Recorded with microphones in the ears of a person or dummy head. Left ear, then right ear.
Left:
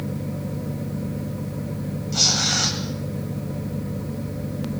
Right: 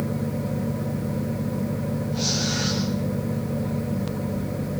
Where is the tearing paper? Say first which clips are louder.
Left 7 dB; 80° left, 9.5 m.